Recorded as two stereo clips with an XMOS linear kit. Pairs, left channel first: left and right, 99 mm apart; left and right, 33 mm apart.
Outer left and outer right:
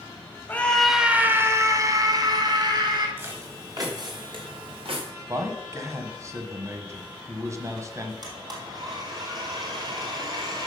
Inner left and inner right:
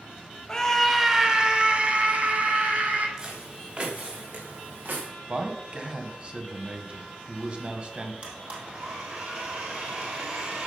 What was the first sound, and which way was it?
A scream, 20° left (ahead or behind).